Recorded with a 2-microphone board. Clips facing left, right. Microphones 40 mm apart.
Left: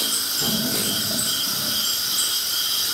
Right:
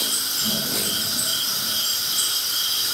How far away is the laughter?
About 9 m.